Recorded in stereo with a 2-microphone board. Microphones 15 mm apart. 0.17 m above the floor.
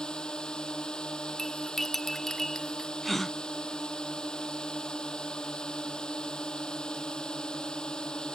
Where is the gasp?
10° left (ahead or behind).